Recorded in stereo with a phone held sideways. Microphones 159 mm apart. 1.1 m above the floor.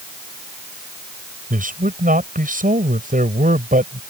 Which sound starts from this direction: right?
A man speaking, at 1.5 s.